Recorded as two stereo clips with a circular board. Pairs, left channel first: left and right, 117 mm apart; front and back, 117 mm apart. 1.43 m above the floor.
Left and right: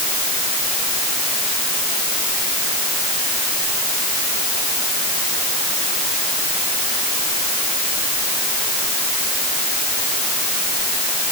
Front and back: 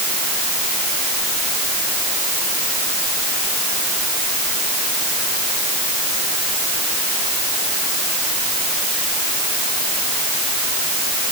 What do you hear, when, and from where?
Only background noise.